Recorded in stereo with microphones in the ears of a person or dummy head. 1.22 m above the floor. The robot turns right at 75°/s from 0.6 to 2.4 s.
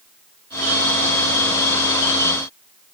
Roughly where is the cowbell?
No cowbell in this recording.